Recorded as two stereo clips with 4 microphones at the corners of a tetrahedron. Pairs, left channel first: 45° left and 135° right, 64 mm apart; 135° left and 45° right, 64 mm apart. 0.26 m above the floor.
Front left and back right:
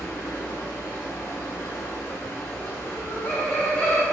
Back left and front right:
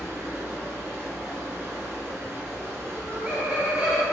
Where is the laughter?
5° right, 1.1 m.